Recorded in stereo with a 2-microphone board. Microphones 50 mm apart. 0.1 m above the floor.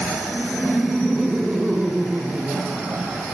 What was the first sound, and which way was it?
Laughter, centre (ahead or behind).